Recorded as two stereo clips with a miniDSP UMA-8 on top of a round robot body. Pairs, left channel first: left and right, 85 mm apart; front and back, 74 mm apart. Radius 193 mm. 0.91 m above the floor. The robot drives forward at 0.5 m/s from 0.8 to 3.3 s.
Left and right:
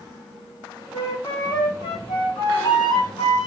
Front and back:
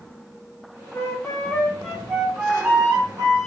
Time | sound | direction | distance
0.9 | a flute | 45° left | 0.9 m